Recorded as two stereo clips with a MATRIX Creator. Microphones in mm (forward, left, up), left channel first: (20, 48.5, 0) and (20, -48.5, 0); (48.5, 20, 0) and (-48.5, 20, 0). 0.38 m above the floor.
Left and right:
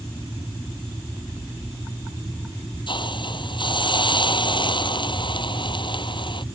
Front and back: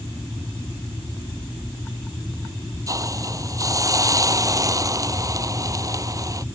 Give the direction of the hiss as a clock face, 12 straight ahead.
8 o'clock.